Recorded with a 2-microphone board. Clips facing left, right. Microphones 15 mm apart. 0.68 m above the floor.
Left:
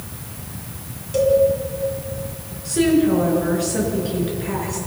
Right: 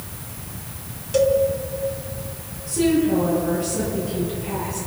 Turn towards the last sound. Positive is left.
turn(degrees=85)